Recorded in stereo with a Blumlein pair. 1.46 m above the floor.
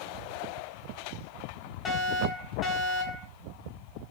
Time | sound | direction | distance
1.9 | a fire alarm | 25° left | 3 m